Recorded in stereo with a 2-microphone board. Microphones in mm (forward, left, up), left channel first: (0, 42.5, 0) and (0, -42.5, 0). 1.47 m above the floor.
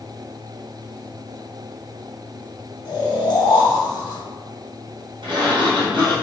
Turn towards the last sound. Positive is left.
turn(degrees=-65)  # may be behind; listen again after turning